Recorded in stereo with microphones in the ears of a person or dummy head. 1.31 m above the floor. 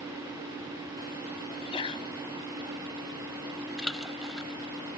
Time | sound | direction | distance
1.5 | a sneeze | 25° left (ahead or behind) | ?
3.8 | a splash | centre (ahead or behind) | ?